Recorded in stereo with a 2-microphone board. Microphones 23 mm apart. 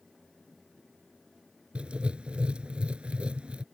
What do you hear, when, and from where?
1.8 s writing: 65° right (ahead or behind)